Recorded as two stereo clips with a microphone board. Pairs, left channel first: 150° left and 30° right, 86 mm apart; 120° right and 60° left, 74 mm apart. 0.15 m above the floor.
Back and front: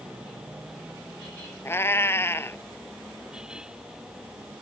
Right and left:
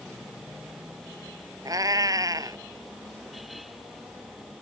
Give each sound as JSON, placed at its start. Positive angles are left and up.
{"t": 1.6, "sound": "a cat meowing", "azimuth_deg": 90}